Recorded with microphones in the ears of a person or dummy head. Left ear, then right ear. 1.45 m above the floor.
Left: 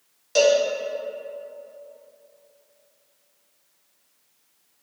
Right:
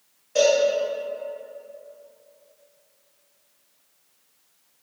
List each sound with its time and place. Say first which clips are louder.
0.3 s a cowbell: left 1 dB; 55° left (ahead or behind), 1.2 m